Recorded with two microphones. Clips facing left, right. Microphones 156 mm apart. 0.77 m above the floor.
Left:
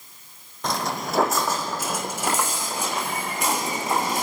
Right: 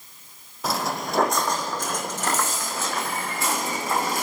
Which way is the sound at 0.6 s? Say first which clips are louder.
Even; 5° right (ahead or behind).